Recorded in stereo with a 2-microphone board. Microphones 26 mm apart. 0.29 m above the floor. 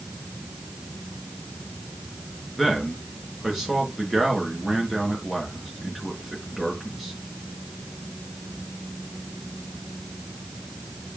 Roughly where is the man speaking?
Centre.